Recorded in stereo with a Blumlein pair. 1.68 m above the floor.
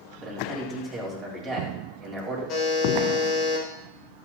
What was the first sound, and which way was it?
A man speaking, 15° right.